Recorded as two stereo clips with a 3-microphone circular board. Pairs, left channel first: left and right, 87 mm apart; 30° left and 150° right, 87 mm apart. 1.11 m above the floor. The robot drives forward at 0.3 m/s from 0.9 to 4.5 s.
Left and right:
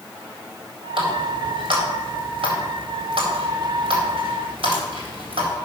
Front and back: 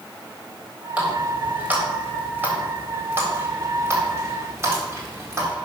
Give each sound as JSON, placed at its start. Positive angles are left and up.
{"t": 1.0, "sound": "a running tap", "azimuth_deg": -75, "distance_m": 3.5}